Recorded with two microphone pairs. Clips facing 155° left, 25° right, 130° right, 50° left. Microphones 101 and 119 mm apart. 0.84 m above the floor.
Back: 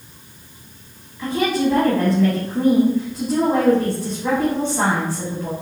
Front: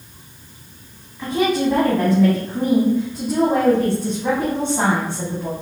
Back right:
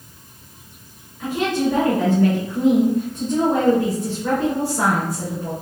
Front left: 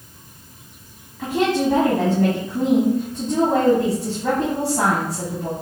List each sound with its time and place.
1.2 s a woman speaking: 45° left, 1.9 m